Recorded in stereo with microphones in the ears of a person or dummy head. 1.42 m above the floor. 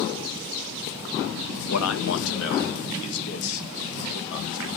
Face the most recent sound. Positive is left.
turn(degrees=65)  # may be behind; listen again after turning